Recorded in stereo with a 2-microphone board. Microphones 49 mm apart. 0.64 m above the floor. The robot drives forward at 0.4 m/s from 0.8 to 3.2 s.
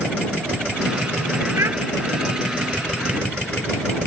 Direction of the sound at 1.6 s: 65° right (ahead or behind).